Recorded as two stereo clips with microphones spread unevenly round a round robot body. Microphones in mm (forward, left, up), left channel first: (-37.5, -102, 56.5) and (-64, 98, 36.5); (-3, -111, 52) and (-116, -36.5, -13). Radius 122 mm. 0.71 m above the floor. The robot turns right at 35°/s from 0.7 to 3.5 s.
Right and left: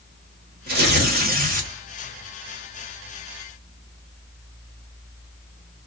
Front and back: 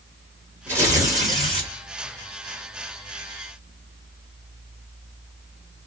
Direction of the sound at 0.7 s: 95° left.